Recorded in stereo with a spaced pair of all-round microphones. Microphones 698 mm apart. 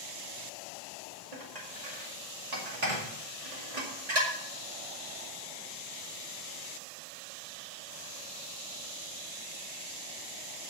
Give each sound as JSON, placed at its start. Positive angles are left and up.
{"t": 1.3, "sound": "dishes clattering", "side_deg": -65, "distance_m": 2.0}